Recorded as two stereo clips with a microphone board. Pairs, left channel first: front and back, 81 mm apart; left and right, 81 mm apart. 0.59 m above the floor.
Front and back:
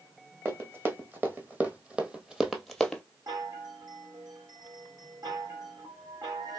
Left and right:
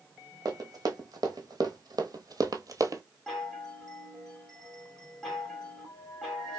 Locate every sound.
0.5 s running footsteps: 120° right, 1.7 m; by 3.0 s 75° right, 0.7 m
3.3 s a chime: 175° left, 2 m